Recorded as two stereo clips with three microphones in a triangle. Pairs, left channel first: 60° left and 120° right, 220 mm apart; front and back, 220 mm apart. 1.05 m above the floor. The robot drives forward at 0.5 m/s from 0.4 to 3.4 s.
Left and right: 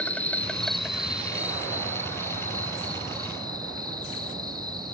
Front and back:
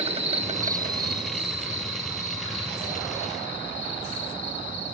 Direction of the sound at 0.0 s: 140° left.